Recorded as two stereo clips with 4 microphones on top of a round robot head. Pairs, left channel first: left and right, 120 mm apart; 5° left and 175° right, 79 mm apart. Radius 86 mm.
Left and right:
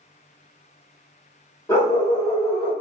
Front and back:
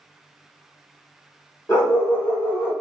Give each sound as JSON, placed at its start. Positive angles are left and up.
{"t": 1.7, "sound": "a dog barking", "azimuth_deg": 45, "distance_m": 0.9}